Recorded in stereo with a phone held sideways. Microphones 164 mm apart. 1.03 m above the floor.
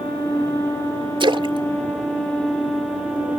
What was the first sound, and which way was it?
A splash, 30° right (ahead or behind).